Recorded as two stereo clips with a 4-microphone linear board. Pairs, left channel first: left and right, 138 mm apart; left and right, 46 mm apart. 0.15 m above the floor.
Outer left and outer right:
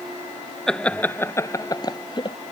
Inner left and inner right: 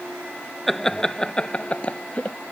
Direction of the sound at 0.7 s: 5° left (ahead or behind).